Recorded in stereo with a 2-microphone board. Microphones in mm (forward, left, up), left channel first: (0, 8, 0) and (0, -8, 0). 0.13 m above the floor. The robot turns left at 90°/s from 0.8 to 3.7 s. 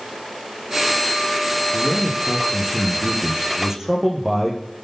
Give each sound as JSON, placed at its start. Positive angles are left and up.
{"t": 1.7, "sound": "a man speaking", "azimuth_deg": 20, "distance_m": 9.5}